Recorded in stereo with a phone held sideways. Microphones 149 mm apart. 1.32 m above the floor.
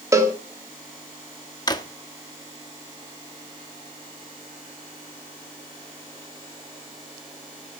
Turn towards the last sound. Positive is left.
turn(degrees=30)  # may be behind; listen again after turning